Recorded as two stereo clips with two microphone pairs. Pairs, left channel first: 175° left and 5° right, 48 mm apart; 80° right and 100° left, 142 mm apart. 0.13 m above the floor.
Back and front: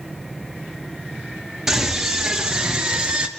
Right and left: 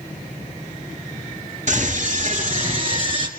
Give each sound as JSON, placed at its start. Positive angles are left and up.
{"t": 1.7, "sound": "a scream", "azimuth_deg": 70, "distance_m": 2.5}